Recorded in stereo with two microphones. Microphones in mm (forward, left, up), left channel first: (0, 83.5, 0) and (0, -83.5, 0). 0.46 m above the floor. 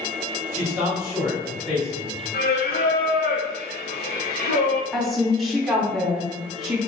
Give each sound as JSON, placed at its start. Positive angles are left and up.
{"t": 0.5, "sound": "a man speaking", "side_deg": -15, "distance_m": 1.9}
{"t": 2.3, "sound": "singing", "side_deg": 70, "distance_m": 0.8}
{"t": 4.9, "sound": "a woman speaking", "side_deg": 0, "distance_m": 0.8}